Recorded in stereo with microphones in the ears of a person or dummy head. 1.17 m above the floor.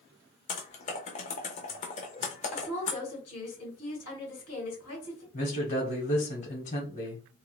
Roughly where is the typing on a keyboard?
Left.